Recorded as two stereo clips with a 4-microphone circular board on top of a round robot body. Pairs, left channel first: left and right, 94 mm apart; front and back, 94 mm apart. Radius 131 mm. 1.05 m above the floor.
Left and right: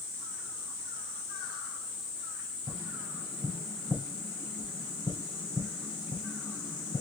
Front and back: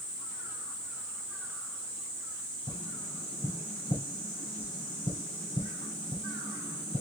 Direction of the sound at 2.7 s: 5° right.